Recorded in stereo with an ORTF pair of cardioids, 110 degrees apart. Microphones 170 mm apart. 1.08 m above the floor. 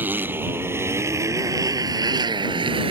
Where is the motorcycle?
10° right; by 2.9 s 30° right.